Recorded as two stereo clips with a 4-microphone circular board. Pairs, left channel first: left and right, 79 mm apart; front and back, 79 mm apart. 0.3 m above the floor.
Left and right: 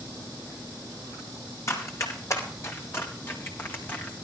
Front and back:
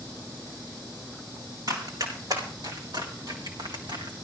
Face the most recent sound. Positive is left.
turn(degrees=160)